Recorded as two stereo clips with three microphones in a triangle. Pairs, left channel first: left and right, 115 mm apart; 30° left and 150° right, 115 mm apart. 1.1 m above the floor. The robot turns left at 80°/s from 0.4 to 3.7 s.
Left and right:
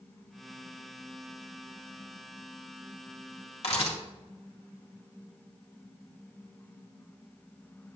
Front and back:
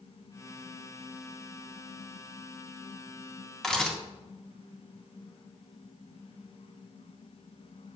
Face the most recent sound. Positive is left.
turn(degrees=115)